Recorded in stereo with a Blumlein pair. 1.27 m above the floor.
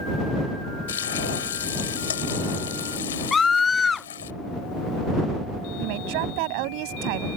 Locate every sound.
0.9 s frying: 65° left
3.3 s a scream: 15° left
5.8 s a woman speaking: 45° right